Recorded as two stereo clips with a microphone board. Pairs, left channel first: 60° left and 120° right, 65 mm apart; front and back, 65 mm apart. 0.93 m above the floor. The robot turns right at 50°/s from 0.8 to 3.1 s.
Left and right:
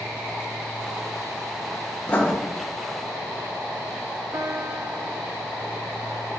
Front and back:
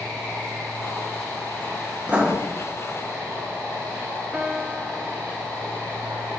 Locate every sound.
2.1 s writing: 110° left, 1.2 m; by 2.3 s 125° left, 1.2 m
4.3 s a piano: 105° right, 0.7 m